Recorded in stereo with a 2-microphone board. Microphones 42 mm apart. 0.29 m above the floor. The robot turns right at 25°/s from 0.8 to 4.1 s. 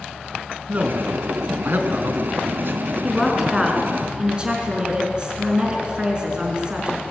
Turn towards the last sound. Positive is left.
turn(degrees=-25)  # may be behind; listen again after turning